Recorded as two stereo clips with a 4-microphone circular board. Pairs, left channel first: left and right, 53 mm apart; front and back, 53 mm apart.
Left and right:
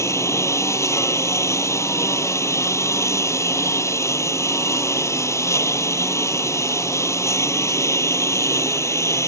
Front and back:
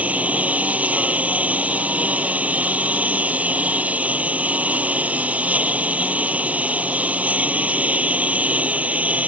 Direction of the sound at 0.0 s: 115° left.